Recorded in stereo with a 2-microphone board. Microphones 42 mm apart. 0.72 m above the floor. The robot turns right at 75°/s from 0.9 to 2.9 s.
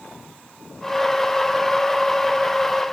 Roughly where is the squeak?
No squeak in this recording.